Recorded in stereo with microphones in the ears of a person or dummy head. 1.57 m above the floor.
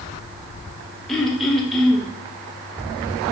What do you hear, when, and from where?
1.1 s throat clearing: centre (ahead or behind), 0.6 m